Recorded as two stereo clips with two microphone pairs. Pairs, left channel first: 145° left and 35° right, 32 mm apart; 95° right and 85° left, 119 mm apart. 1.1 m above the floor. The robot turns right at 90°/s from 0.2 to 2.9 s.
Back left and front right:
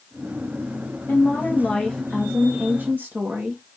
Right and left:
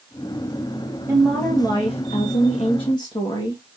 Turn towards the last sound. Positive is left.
turn(degrees=-45)